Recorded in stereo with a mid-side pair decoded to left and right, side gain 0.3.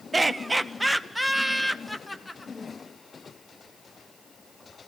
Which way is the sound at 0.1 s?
25° right.